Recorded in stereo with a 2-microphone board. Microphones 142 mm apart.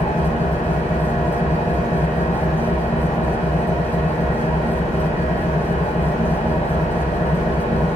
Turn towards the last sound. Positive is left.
turn(degrees=60)  # may be behind; listen again after turning